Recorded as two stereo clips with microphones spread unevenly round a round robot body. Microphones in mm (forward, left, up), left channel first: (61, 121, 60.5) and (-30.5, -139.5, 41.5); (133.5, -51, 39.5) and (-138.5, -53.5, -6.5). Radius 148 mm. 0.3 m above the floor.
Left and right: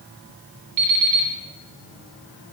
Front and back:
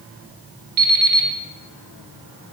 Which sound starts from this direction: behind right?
An alarm clock, at 0.8 s.